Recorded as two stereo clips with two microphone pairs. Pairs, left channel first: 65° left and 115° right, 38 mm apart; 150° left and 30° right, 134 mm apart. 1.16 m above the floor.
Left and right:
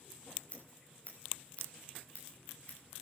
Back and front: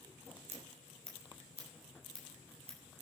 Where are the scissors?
10° left, 5.5 m.